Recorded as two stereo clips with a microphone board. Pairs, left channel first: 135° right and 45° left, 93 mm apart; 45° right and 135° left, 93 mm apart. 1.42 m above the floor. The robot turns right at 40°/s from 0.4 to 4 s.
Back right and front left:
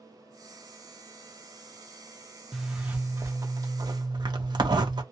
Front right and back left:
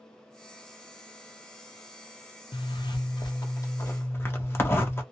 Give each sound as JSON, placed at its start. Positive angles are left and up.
{"t": 2.5, "sound": "a zipper", "azimuth_deg": -45, "distance_m": 0.8}